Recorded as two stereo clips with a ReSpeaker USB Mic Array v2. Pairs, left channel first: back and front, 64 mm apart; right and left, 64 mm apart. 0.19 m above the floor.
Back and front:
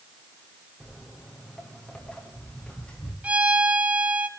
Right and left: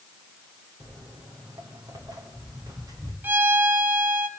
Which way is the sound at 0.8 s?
95° left.